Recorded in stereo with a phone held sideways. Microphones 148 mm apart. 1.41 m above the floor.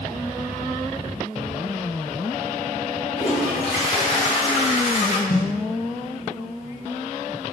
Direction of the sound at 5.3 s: 70° left (ahead or behind).